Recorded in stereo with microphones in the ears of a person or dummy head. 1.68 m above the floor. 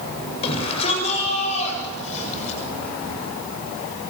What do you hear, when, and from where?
0.4 s a shout: 35° left (ahead or behind), 7.5 m; by 2.6 s 40° left (ahead or behind), 8 m